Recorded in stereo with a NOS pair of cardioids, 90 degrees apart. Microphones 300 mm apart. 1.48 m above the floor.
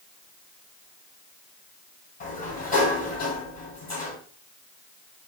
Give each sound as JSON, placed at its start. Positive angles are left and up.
{"t": 2.2, "sound": "a sliding door", "azimuth_deg": 30, "distance_m": 3.0}